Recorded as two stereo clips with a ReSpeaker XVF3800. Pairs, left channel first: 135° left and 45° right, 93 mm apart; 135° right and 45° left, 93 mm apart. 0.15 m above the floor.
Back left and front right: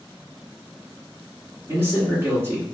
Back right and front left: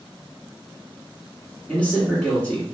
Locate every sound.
1.7 s a man speaking: 75° right, 1.4 m